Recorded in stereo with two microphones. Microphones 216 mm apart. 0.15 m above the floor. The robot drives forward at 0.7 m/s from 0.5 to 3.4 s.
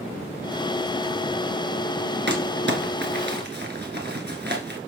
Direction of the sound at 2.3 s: 55° right (ahead or behind).